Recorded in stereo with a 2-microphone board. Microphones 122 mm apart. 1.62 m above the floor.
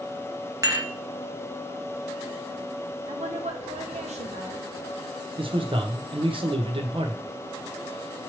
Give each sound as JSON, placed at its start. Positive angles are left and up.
{"t": 0.6, "sound": "dishes clattering", "side_deg": -30, "distance_m": 1.0}
{"t": 3.1, "sound": "a woman speaking", "side_deg": -75, "distance_m": 1.2}
{"t": 5.4, "sound": "a man speaking", "side_deg": -50, "distance_m": 0.9}